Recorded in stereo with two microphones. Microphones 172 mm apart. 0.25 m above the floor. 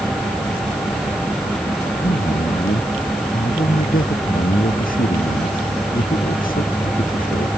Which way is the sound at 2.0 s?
55° left (ahead or behind).